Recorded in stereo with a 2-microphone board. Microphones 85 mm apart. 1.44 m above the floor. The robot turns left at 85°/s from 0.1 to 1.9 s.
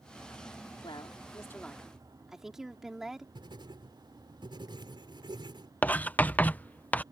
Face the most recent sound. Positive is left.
turn(degrees=20)  # may be behind; listen again after turning